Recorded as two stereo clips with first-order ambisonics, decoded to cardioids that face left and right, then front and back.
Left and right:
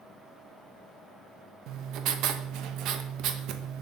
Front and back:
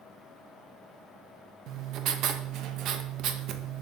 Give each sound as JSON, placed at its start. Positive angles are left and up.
{"t": 1.7, "sound": "writing", "azimuth_deg": -130, "distance_m": 0.6}